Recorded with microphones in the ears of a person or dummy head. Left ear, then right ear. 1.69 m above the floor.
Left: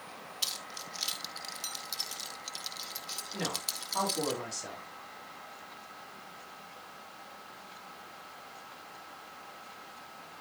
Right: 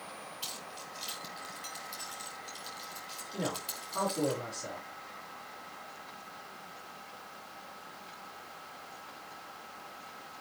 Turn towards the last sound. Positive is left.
turn(degrees=55)  # may be behind; listen again after turning